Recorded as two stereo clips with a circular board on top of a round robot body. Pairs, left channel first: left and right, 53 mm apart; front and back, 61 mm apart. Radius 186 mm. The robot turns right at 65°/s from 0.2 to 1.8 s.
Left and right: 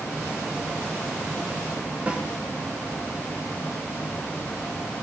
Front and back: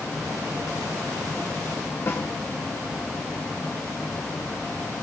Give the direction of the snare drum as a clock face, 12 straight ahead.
1 o'clock.